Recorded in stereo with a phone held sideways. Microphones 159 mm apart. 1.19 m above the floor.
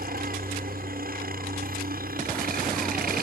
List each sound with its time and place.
0.0 s a helicopter: 65° right (ahead or behind)